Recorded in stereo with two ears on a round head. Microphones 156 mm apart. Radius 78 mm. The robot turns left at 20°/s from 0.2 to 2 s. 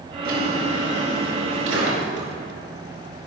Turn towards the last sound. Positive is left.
turn(degrees=-95)